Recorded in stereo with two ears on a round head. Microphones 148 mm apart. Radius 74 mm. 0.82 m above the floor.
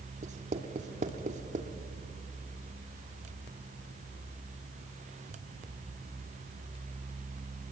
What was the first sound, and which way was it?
Writing, 45° right (ahead or behind).